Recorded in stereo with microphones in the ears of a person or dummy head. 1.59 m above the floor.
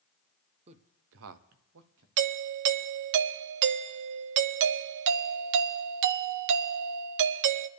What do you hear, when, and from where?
0.7 s a man speaking: 35° right (ahead or behind), 0.9 m; by 2.1 s 60° right (ahead or behind), 1.3 m
2.2 s a doorbell: 70° right (ahead or behind), 0.6 m